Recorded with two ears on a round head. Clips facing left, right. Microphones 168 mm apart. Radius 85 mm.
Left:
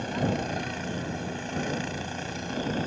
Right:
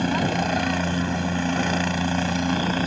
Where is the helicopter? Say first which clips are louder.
Right 5 dB; 70° right (ahead or behind).